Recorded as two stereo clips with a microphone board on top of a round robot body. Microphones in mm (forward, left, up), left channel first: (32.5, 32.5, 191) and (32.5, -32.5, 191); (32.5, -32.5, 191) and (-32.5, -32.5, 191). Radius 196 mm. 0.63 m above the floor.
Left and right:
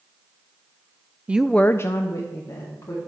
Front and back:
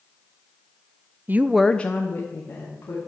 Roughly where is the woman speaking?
Behind right.